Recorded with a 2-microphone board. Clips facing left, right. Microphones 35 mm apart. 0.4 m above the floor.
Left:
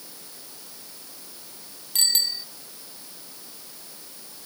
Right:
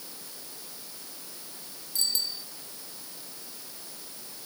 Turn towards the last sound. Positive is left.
turn(degrees=65)  # may be behind; listen again after turning